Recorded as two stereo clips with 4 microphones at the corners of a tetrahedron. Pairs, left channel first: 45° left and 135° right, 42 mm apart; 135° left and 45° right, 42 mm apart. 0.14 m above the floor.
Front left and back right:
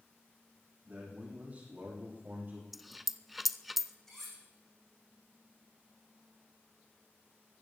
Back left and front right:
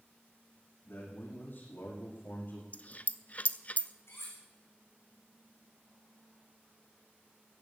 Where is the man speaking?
165° left, 6.5 m; by 2.6 s 175° left, 5.5 m.